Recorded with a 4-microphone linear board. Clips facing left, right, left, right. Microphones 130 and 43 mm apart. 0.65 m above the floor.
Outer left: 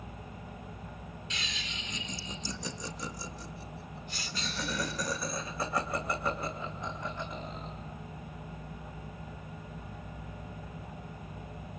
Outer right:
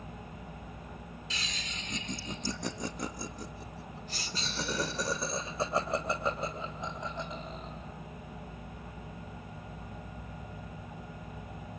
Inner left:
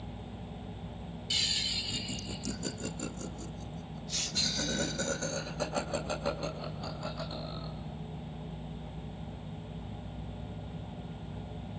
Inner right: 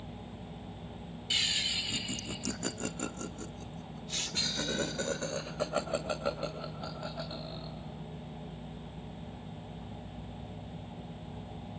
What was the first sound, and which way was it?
Laughter, 35° right (ahead or behind).